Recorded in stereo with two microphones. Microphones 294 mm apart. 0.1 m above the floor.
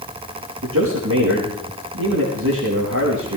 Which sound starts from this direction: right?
A man speaking, at 0.6 s.